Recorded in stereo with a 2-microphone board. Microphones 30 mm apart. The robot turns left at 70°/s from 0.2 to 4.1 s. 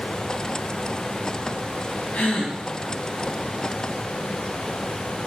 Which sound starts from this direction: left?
A gasp, at 2.1 s.